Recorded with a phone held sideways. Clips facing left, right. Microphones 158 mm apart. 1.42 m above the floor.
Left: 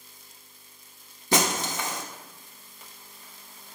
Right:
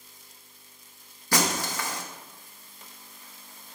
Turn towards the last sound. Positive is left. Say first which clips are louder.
# left 2 dB
turn(degrees=25)  # may be behind; listen again after turning